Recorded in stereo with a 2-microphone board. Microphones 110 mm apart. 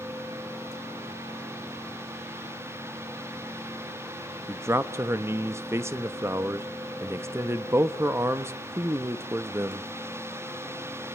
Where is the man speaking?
25° right (ahead or behind), 0.8 m.